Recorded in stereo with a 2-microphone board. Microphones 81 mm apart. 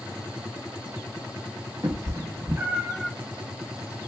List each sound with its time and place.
1.8 s a cat meowing: 45° right (ahead or behind), 0.9 m; by 3.1 s 5° left (ahead or behind), 0.6 m